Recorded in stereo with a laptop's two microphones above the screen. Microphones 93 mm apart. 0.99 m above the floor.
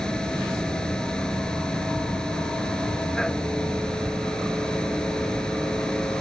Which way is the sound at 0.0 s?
10° left (ahead or behind).